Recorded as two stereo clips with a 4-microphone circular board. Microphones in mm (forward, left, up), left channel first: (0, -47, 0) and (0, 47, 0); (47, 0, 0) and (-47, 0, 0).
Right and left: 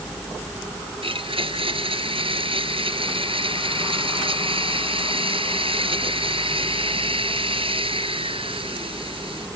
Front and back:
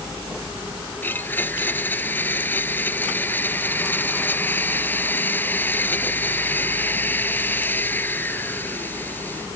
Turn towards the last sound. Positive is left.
turn(degrees=70)